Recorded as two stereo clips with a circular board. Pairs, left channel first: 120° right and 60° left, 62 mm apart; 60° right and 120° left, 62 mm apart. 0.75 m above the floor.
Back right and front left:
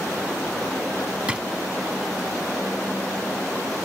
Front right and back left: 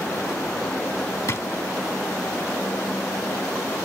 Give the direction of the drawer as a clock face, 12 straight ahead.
12 o'clock.